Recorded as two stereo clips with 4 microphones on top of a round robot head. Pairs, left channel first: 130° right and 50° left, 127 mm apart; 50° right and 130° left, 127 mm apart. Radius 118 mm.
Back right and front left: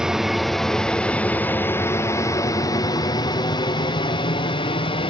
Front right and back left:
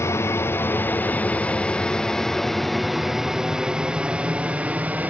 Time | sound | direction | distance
0.0 | an aircraft | 25° right | ?